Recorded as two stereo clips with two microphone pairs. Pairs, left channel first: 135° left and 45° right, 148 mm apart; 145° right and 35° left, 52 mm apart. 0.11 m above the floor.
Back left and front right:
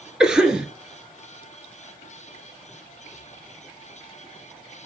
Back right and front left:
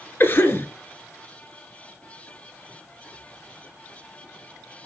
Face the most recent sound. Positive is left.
turn(degrees=-130)